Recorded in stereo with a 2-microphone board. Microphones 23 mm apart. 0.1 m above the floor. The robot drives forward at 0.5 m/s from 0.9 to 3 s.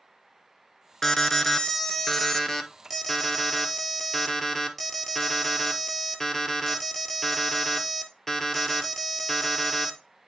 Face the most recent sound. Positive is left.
turn(degrees=10)  # may be behind; listen again after turning